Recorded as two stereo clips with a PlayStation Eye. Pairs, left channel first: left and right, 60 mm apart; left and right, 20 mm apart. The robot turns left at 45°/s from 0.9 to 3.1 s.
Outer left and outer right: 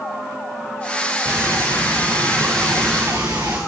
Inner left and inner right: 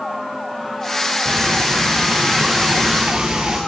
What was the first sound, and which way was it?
Frying, 35° right.